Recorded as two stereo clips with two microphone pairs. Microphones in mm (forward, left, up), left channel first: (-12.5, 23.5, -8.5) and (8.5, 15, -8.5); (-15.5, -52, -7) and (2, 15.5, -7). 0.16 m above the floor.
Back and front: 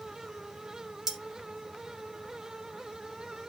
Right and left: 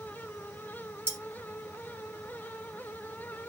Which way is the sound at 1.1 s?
30° left.